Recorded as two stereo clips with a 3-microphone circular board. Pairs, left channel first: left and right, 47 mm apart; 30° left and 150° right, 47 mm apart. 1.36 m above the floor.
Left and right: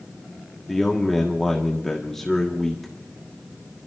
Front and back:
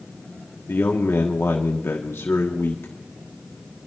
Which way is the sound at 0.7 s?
10° left.